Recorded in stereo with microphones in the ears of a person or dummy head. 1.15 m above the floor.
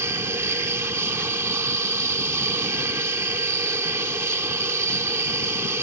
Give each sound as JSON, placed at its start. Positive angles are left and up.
{"t": 0.0, "sound": "an aircraft", "side_deg": -10}